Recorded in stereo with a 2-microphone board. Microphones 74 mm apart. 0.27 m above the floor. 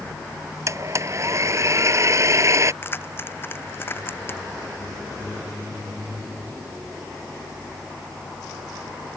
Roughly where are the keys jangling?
Left.